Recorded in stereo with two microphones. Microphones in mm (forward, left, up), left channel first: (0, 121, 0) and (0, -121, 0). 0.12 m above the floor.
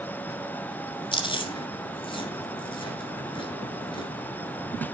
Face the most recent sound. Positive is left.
turn(degrees=20)  # may be behind; listen again after turning